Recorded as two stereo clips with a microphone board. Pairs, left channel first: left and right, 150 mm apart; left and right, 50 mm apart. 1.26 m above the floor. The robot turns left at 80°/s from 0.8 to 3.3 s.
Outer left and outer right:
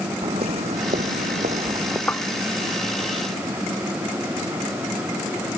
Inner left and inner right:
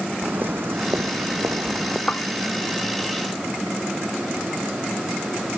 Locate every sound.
0.2 s footsteps: 45° right (ahead or behind); by 2.0 s 15° right (ahead or behind)
2.1 s tapping: 10° left (ahead or behind); by 2.2 s 20° left (ahead or behind)